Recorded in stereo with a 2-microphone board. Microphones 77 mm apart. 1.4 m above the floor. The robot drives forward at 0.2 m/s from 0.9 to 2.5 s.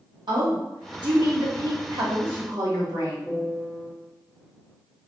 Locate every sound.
0.3 s a woman speaking: 70° right (ahead or behind), 1.5 m; by 3.2 s 60° right (ahead or behind), 1.6 m
3.3 s a piano: 15° left (ahead or behind), 1.3 m